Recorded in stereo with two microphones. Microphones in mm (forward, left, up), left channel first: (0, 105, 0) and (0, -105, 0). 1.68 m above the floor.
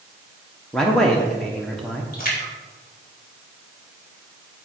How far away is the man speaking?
About 1.0 m.